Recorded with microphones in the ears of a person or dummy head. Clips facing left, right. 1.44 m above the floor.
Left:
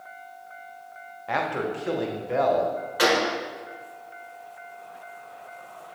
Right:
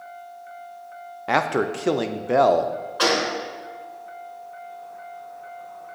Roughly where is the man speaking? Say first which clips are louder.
Right 5 dB; right.